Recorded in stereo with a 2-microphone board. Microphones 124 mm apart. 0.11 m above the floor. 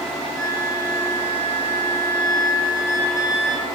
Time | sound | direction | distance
0.3 | a flute | 20° left (ahead or behind) | 6 m